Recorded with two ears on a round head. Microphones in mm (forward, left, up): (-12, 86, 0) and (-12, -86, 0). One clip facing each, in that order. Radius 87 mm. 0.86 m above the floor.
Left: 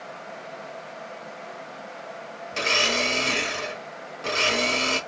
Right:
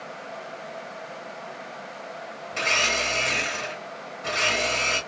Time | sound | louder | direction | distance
2.5 | a blender | left 2 dB | 50° left (ahead or behind) | 1.3 m